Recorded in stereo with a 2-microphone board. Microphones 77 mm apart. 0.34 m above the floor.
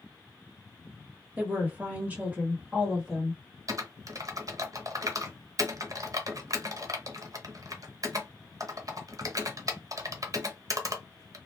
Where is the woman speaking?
20° right (ahead or behind), 1.2 m; by 3.4 s 10° right (ahead or behind), 1.1 m.